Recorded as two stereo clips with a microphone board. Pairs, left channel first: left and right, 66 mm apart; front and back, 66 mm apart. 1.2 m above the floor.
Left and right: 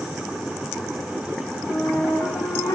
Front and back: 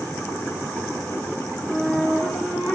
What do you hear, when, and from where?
1.7 s a flute: 75° left, 2.5 m